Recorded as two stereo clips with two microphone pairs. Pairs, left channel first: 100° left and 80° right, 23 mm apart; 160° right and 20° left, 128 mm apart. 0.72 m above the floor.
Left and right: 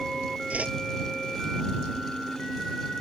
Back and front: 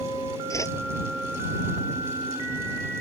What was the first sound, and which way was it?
A whoosh, 95° right.